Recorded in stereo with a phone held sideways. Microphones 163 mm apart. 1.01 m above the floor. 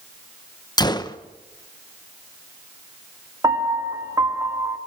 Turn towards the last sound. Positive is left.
turn(degrees=-20)  # may be behind; listen again after turning